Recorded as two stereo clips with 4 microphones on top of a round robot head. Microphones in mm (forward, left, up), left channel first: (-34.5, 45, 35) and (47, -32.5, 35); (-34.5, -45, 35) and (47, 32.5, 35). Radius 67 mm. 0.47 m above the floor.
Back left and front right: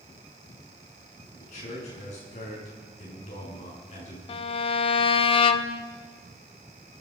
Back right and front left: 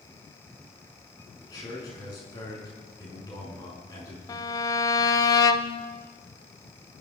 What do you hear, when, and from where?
1.4 s a man speaking: 165° left, 6 m
4.3 s a violin: 170° left, 0.9 m